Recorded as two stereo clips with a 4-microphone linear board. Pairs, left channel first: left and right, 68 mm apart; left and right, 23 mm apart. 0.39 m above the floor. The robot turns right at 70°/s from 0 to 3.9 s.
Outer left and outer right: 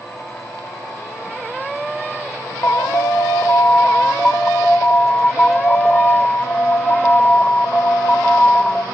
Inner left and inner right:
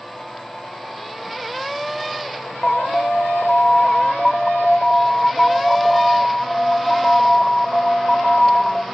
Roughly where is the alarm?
Ahead left.